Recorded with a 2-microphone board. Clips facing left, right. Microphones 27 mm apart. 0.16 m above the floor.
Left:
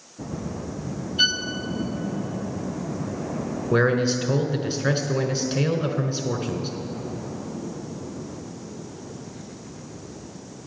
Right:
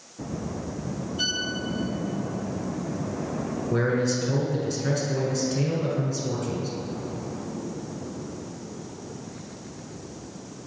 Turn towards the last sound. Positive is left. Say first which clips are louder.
# left 4 dB
turn(degrees=45)  # may be behind; listen again after turning